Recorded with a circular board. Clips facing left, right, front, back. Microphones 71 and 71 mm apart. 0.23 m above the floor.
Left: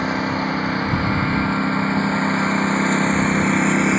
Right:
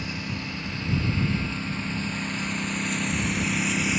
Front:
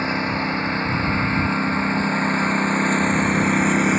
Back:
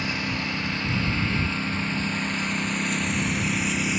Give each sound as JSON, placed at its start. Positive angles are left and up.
{"t": 0.0, "sound": "a lawn mower", "azimuth_deg": 55}